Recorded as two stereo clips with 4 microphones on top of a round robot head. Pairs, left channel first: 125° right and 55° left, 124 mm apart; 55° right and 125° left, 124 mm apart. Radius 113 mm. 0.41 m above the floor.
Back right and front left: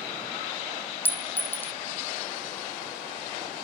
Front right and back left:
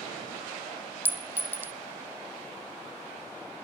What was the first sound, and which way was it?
A clink, straight behind.